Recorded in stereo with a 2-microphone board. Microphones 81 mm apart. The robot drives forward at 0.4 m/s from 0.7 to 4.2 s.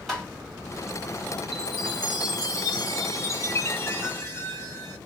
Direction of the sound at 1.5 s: 55° left (ahead or behind).